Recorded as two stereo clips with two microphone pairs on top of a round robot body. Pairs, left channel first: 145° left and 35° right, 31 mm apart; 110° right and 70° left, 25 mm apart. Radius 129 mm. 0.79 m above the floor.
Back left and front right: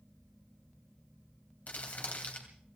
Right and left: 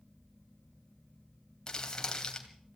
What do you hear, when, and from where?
1.7 s crumpling: 170° right, 2.5 m